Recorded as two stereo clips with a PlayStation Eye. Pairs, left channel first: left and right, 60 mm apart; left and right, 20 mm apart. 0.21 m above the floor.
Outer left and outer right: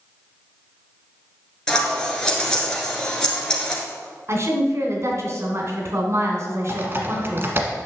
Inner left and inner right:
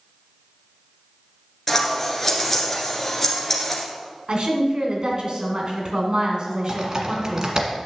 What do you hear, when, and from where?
1.7 s scissors: 15° left (ahead or behind), 2 m
4.3 s a woman speaking: 50° right (ahead or behind), 2 m
6.7 s typing on a keyboard: 40° right (ahead or behind), 1.4 m